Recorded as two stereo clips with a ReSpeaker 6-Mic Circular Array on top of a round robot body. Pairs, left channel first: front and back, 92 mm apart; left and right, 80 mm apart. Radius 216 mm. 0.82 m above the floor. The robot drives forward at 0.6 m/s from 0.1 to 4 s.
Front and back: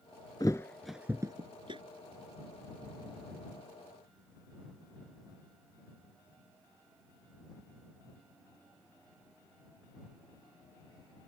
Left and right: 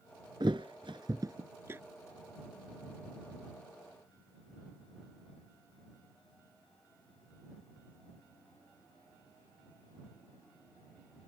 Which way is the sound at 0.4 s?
50° right.